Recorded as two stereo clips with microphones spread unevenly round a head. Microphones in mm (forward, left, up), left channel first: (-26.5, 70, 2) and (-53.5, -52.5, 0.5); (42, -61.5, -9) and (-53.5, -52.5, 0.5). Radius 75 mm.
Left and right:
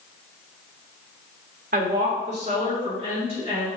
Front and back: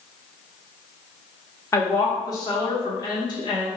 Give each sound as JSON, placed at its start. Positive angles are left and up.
{"t": 1.7, "sound": "a woman speaking", "azimuth_deg": -65, "distance_m": 1.1}